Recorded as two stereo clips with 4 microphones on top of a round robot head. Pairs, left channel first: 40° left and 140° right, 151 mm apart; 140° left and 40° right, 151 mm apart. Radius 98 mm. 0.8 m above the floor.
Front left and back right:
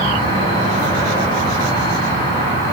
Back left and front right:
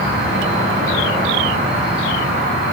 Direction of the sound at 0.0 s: 20° right.